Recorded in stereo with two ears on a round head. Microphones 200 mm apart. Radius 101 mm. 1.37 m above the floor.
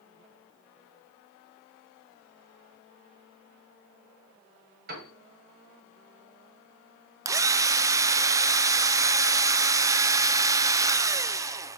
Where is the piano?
45° right (ahead or behind), 3.5 m.